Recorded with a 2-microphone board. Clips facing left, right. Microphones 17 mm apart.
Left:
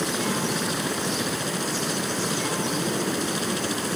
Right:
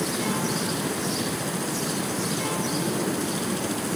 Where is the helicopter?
25° left (ahead or behind).